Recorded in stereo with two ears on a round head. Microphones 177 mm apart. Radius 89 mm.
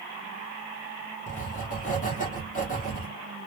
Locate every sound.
1.3 s writing: 40° left (ahead or behind), 0.8 m